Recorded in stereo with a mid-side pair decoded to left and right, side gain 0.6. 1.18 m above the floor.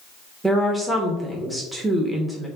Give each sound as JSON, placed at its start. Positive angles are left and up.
{"t": 0.4, "sound": "a woman speaking", "azimuth_deg": -5, "distance_m": 0.9}